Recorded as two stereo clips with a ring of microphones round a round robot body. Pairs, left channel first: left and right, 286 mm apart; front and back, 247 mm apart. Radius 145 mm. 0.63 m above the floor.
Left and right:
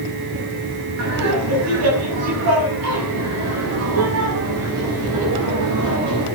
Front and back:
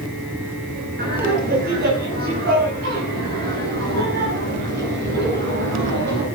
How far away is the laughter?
About 5.5 m.